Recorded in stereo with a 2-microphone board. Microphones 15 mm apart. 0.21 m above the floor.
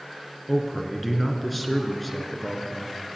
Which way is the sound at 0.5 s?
5° left (ahead or behind).